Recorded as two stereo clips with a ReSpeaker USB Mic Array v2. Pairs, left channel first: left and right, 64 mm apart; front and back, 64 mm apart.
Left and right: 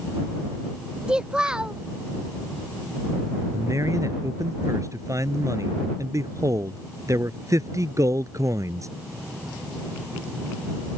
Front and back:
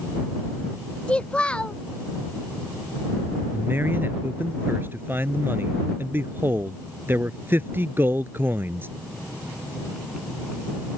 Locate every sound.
1.1 s a child speaking: 35° right
3.5 s a man speaking: 125° right